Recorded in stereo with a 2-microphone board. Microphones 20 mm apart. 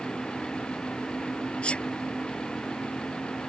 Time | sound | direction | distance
1.6 | a sneeze | 60° left (ahead or behind) | ?